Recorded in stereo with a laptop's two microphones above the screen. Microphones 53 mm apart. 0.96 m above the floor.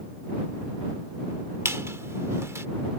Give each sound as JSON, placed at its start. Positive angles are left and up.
{"t": 1.6, "sound": "a squeak", "side_deg": -65}